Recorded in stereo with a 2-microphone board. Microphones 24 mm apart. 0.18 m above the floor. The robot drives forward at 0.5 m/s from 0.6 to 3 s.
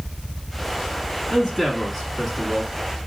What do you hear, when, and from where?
1.3 s a man speaking: 5° left (ahead or behind), 1.3 m